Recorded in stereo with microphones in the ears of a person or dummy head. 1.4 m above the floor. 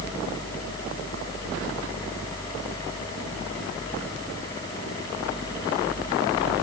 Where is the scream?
I don't hear a scream.